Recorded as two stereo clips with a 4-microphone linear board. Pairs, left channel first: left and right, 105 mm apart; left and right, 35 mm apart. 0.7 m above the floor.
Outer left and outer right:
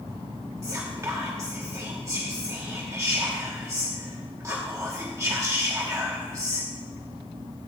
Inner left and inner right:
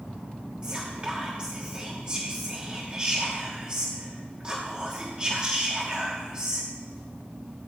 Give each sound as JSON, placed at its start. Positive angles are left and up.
{"t": 0.6, "sound": "whispering", "side_deg": -30, "distance_m": 1.0}